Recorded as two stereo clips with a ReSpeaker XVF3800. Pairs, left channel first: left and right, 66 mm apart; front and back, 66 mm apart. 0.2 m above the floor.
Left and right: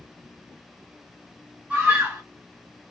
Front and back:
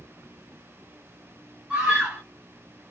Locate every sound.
1.7 s a scream: 135° right, 1.3 m